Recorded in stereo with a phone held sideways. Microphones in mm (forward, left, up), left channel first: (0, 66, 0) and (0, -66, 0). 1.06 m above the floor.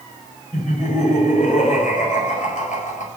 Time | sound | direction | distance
0.5 | laughter | 75° left (ahead or behind) | 5 m